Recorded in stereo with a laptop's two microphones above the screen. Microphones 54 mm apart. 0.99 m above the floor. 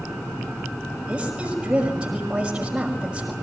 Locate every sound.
1.1 s a woman speaking: 20° right (ahead or behind), 5.5 m